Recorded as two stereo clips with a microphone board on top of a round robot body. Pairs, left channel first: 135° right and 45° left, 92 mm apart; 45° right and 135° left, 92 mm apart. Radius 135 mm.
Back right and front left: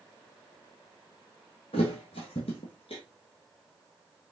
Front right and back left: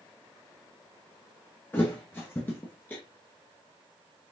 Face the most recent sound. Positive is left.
turn(degrees=-115)